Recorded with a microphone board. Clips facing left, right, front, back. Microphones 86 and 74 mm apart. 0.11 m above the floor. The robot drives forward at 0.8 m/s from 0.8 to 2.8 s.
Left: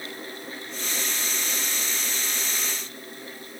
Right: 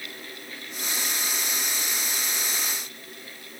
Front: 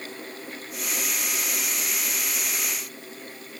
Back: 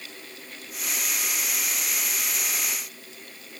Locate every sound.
Only background noise.